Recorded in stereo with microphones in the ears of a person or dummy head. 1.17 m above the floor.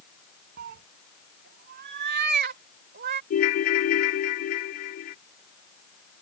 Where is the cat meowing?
45° right (ahead or behind); by 3.2 s 50° right (ahead or behind).